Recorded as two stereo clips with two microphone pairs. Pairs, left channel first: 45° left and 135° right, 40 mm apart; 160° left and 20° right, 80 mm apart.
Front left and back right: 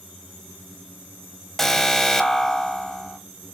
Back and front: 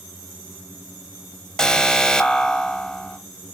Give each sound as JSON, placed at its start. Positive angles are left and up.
{"t": 1.6, "sound": "an alarm", "azimuth_deg": 100, "distance_m": 0.9}